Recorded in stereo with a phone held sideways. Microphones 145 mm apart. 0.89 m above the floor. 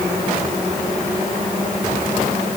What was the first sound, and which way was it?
Only background noise.